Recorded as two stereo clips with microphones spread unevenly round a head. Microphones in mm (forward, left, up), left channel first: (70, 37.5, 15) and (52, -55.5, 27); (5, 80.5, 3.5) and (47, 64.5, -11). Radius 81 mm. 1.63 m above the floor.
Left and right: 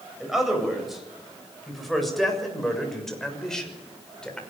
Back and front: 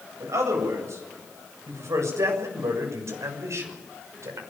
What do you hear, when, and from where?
0.2 s a man speaking: 15° right, 8 m; by 4.4 s 5° right, 6 m